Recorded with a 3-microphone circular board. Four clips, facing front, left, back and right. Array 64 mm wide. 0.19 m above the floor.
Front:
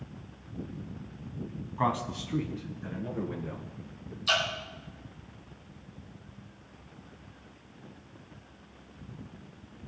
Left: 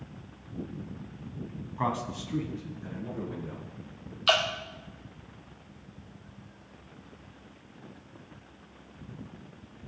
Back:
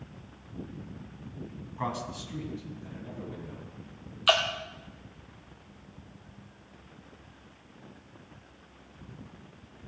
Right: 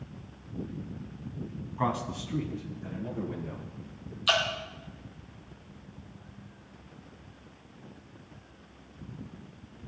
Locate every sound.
1.8 s a man speaking: 5° left, 1.0 m; by 4.2 s 5° right, 3 m
4.3 s dripping: 145° left, 2 m